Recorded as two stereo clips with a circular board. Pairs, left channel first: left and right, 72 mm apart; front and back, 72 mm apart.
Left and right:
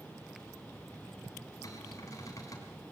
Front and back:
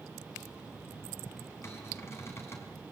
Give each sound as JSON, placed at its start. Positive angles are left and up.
{"t": 1.6, "sound": "a cupboard door", "azimuth_deg": 50, "distance_m": 4.5}